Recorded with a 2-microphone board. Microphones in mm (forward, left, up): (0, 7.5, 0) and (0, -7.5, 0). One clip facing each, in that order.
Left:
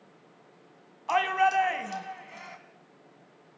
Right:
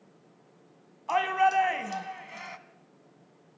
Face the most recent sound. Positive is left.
turn(degrees=-20)  # may be behind; listen again after turning